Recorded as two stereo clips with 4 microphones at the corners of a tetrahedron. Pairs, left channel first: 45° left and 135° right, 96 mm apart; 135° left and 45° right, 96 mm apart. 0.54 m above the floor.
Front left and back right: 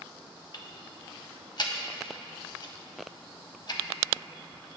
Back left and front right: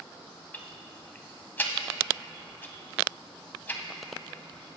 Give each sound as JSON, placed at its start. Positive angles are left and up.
{"t": 0.5, "sound": "ticking", "azimuth_deg": 70, "distance_m": 0.5}